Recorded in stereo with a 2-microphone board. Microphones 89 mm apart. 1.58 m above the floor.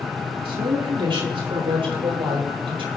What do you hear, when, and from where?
0.5 s a woman speaking: 75° right (ahead or behind), 3.5 m; by 2.9 s 80° right, 7 m